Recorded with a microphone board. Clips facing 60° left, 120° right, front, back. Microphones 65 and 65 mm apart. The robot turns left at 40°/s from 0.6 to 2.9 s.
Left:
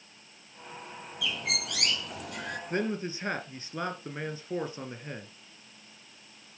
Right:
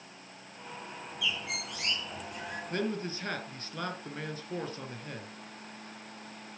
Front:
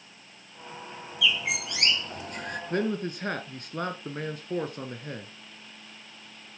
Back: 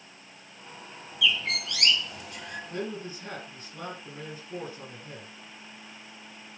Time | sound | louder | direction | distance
1.2 | a bird | left 2 dB, even | 90° left | 1.5 m
2.7 | a man speaking | left 2 dB, front 8 dB | straight ahead | 2.5 m